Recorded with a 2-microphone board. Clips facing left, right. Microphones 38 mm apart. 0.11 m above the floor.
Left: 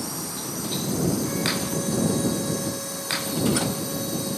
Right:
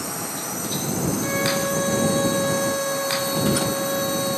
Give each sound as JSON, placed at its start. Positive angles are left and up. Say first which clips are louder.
{"t": 0.0, "sound": "a drone", "louder": "right 3 dB", "side_deg": -50}
{"t": 1.2, "sound": "a violin", "louder": "right 4 dB", "side_deg": -45}